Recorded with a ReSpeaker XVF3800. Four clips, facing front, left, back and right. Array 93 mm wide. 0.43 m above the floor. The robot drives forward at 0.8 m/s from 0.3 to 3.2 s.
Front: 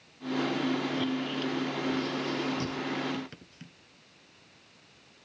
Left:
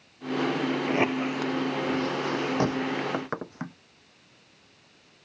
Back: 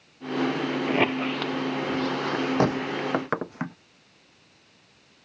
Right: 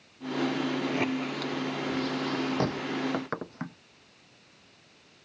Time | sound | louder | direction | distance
0.9 | a squeak | left 4 dB, back 7 dB | 150° left | ?